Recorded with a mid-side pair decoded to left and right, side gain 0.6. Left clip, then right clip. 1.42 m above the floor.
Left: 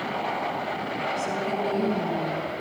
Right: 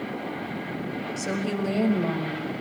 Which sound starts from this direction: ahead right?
A woman speaking, at 1.2 s.